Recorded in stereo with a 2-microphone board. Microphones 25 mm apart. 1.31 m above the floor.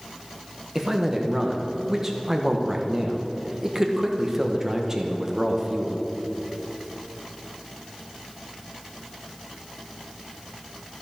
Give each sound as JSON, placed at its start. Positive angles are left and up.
{"t": 0.8, "sound": "a man speaking", "side_deg": -20, "distance_m": 1.2}